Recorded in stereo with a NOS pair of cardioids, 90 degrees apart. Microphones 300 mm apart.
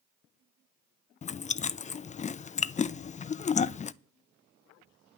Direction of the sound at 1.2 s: 25° left.